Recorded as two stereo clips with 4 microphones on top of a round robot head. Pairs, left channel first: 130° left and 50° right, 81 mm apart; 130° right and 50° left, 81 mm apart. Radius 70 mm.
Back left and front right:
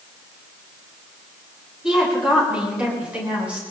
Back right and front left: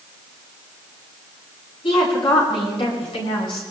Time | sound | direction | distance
1.8 | a woman speaking | 130° right | 9 m